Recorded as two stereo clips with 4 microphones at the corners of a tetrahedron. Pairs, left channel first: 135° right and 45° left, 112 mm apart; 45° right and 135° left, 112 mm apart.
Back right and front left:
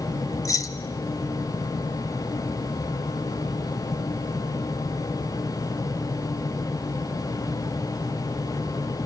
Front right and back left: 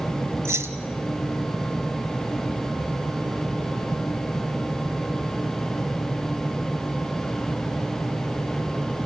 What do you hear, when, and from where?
0.5 s keys jangling: 175° right, 0.8 m